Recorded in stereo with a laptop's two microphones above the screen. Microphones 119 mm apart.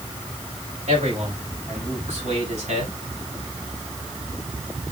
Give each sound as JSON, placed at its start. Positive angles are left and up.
{"t": 0.9, "sound": "a man speaking", "side_deg": -85, "distance_m": 6.5}